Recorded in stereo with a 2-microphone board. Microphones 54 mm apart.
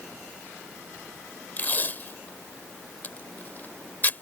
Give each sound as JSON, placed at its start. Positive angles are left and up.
{"t": 1.6, "sound": "tape being pulled", "side_deg": 35}